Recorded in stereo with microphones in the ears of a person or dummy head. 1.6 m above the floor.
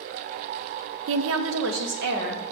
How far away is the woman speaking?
About 0.6 m.